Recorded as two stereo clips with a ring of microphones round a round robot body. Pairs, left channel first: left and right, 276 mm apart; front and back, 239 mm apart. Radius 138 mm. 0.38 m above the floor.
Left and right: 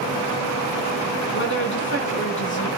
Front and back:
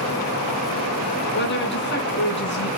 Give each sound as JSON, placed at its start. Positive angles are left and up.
{"t": 1.3, "sound": "a woman speaking", "azimuth_deg": 40, "distance_m": 4.5}